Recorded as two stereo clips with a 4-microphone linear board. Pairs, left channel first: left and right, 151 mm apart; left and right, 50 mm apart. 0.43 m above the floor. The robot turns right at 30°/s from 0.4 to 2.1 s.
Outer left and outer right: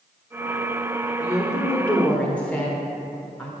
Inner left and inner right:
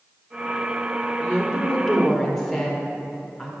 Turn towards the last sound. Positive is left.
turn(degrees=5)  # may be behind; listen again after turning